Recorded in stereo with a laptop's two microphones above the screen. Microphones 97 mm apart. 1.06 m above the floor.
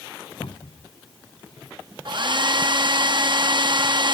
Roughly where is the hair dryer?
Right.